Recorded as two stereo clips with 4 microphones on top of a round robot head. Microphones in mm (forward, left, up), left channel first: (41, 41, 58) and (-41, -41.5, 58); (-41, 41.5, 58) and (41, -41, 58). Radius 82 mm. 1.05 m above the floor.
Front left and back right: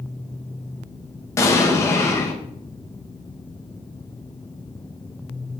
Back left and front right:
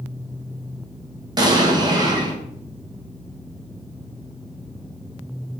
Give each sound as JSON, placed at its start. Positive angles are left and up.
{"t": 1.4, "sound": "an explosion", "azimuth_deg": -10, "distance_m": 0.9}